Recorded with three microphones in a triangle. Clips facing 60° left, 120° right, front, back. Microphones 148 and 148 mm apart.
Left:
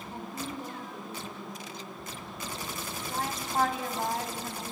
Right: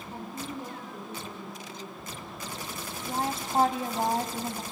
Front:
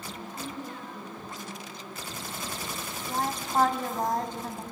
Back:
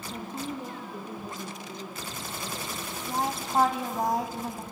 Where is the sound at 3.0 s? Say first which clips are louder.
Right 4 dB, back 1 dB; 105° right, 1.4 m.